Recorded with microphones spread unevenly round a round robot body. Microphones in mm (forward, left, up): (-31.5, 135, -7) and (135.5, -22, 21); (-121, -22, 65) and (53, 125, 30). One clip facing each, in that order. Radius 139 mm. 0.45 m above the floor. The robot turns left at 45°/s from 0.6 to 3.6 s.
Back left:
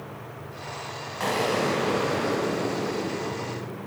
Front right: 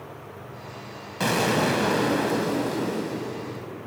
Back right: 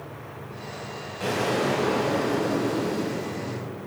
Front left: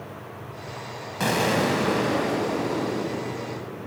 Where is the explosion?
Straight ahead, 1.7 m; by 3.7 s 110° right, 1.7 m.